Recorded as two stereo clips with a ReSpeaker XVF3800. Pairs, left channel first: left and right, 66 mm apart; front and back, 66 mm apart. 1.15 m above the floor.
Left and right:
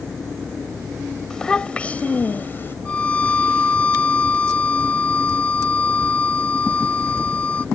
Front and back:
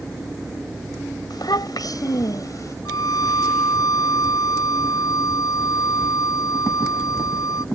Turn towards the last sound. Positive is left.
turn(degrees=20)